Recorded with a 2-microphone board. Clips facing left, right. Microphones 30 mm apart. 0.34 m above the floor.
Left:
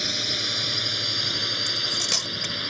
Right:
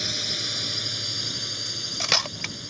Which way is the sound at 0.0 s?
10° left (ahead or behind).